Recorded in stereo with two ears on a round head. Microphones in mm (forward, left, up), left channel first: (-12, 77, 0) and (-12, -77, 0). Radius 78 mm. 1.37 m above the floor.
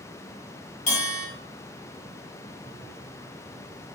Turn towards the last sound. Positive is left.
turn(degrees=45)  # may be behind; listen again after turning